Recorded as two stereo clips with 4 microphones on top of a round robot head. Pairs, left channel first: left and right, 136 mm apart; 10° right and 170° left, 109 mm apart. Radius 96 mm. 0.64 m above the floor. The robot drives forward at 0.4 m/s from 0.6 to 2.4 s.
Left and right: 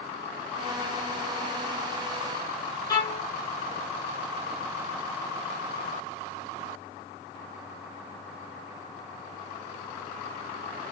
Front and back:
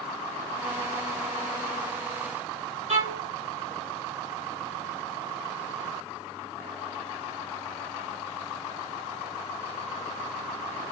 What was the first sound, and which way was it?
A violin, 150° left.